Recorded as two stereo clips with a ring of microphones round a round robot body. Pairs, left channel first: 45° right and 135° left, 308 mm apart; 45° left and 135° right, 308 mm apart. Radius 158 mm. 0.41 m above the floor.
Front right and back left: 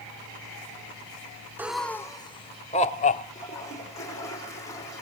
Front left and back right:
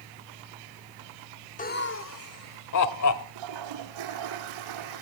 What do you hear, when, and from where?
1.6 s laughter: 60° left, 0.8 m; by 3.2 s 20° left, 1.7 m
3.4 s a toilet flushing: 125° right, 6 m